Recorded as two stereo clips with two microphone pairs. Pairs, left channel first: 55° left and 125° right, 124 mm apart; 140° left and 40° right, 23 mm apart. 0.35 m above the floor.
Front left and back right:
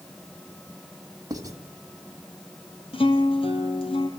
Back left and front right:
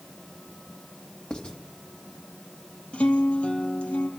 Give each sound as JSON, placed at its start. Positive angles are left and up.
{"t": 1.3, "sound": "writing", "azimuth_deg": 180, "distance_m": 2.5}
{"t": 2.9, "sound": "a guitar", "azimuth_deg": 100, "distance_m": 2.5}